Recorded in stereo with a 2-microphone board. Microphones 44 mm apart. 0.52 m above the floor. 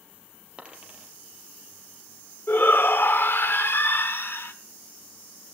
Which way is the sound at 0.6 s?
25° right (ahead or behind).